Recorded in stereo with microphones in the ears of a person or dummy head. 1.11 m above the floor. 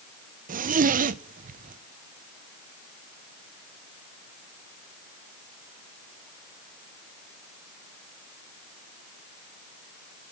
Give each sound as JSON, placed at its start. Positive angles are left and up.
{"t": 0.5, "sound": "a zipper", "side_deg": -40, "distance_m": 0.5}